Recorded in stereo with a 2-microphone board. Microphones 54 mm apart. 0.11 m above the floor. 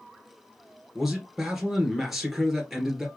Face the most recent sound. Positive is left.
turn(degrees=-5)  # may be behind; listen again after turning